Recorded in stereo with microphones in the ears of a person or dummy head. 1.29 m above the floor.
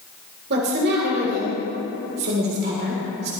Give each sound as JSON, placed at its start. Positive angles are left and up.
{"t": 0.5, "sound": "a woman speaking", "side_deg": -55, "distance_m": 3.5}